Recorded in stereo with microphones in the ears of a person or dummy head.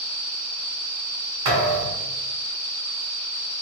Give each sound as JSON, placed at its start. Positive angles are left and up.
{"t": 1.4, "sound": "a thud", "side_deg": -40, "distance_m": 1.5}